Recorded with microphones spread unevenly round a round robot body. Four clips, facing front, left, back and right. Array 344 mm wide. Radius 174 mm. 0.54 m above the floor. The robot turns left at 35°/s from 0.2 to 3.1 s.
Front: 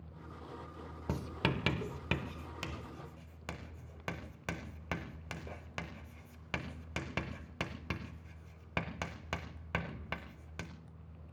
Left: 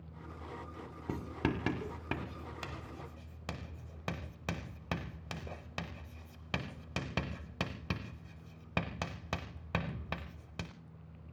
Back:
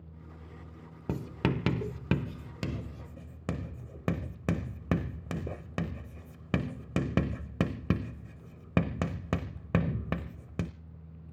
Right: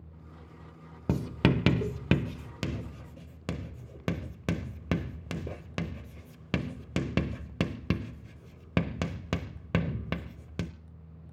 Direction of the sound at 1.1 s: 75° right.